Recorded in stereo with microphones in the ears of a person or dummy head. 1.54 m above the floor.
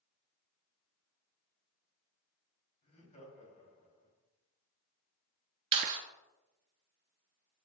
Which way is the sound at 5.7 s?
35° right (ahead or behind).